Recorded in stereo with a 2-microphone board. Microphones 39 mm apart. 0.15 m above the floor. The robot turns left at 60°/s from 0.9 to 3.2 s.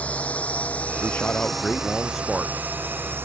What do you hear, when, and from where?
0.0 s a drone: 40° left (ahead or behind); by 3.2 s 80° right
1.0 s a man speaking: 70° left; by 3.1 s 60° right